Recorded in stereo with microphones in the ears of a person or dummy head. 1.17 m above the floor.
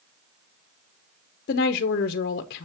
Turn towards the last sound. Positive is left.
turn(degrees=55)  # may be behind; listen again after turning